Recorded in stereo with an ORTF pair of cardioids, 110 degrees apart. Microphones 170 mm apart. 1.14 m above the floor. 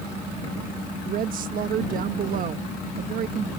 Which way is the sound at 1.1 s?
55° right.